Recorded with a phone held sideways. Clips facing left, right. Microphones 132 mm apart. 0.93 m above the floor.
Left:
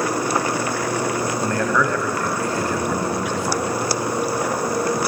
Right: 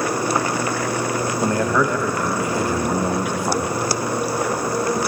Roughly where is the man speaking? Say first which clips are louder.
Right 3 dB; centre.